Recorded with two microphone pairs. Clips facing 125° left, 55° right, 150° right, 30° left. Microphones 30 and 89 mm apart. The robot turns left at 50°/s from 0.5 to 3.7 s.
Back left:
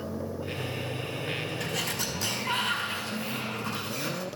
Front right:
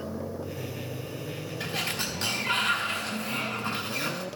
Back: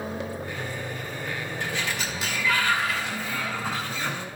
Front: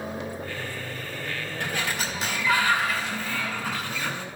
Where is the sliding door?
5° left, 3 m; by 4.2 s 100° right, 3 m.